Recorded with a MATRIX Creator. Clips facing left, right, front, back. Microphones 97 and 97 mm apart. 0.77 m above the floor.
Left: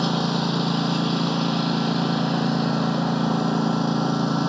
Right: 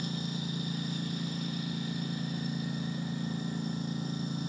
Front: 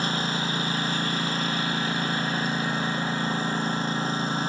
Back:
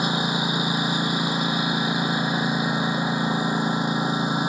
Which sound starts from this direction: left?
A lawn mower, at 0.0 s.